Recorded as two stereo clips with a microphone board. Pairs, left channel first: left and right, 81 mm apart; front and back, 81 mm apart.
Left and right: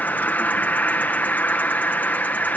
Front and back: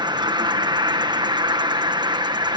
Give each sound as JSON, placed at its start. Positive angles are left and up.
{"t": 0.0, "sound": "an insect", "azimuth_deg": 160}